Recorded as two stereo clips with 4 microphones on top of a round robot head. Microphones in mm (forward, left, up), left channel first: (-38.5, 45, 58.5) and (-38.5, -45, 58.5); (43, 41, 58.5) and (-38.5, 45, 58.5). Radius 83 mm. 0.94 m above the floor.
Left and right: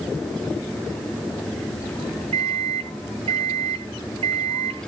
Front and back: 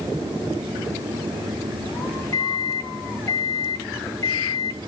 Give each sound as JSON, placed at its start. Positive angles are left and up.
{"t": 2.3, "sound": "a microwave", "azimuth_deg": -60, "distance_m": 0.9}